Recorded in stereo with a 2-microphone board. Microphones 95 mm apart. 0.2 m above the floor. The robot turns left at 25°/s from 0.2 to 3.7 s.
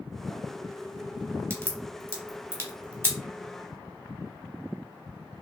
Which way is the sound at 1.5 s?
25° right (ahead or behind).